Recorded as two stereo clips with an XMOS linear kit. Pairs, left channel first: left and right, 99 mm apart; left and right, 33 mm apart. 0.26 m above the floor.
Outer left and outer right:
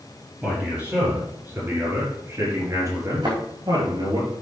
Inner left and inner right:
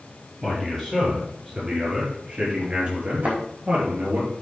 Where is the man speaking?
15° right (ahead or behind), 5 m; by 4.2 s 45° right (ahead or behind), 4.5 m.